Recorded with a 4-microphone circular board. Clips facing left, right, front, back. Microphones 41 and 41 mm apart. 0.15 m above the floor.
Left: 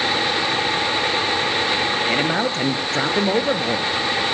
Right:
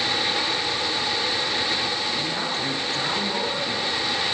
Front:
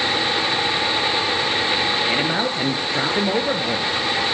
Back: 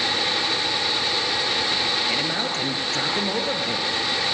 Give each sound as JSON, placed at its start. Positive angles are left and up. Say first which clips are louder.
{"t": 2.1, "sound": "a man speaking", "louder": "left 7 dB, front 4 dB", "azimuth_deg": 70, "distance_m": 3.0}